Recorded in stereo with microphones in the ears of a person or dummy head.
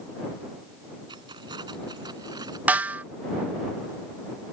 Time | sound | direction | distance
1.1 | keys jangling | 20° right (ahead or behind) | ?
2.7 | a snare drum | 10° right (ahead or behind) | ?